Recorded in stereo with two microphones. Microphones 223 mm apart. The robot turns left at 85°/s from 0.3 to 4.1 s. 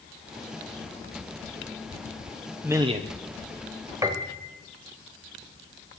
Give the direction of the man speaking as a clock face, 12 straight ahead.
12 o'clock.